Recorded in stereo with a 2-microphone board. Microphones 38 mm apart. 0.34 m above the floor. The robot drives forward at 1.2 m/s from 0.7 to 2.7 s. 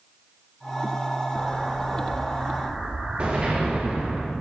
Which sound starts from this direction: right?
An explosion, at 1.4 s.